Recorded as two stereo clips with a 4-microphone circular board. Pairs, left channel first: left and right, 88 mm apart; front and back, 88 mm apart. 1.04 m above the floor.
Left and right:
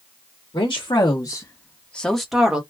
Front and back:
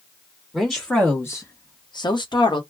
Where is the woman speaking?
85° left, 1.1 m; by 2.6 s 10° right, 1.2 m.